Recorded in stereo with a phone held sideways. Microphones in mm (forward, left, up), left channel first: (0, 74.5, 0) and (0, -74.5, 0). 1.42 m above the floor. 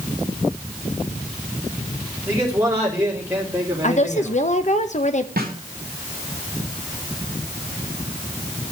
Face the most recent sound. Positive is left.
turn(degrees=-85)